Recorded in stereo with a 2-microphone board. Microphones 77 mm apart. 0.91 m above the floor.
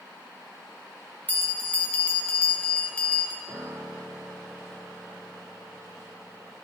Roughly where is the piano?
Right.